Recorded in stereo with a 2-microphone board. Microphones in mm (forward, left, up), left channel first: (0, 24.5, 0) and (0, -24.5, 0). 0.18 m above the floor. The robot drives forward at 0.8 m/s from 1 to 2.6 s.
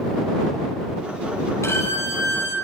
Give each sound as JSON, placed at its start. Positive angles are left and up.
{"t": 1.6, "sound": "a violin", "side_deg": 70, "distance_m": 4.0}